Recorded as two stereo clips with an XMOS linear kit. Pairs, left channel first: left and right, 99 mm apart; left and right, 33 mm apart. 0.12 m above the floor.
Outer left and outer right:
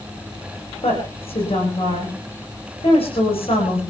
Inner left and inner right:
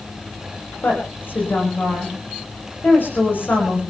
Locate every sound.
0.8 s a woman speaking: 70° left (ahead or behind), 8.5 m